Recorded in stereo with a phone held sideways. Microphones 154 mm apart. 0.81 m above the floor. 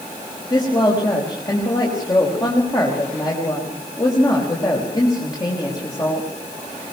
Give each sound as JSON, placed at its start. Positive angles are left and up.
{"t": 0.5, "sound": "a woman speaking", "side_deg": 25, "distance_m": 5.5}